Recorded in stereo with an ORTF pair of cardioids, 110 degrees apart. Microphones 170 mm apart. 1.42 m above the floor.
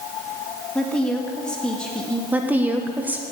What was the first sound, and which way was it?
A woman speaking, 5° left.